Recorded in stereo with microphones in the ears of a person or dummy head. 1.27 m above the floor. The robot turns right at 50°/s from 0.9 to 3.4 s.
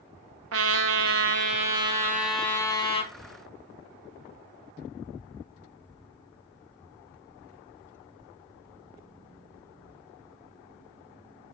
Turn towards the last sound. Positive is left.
turn(degrees=55)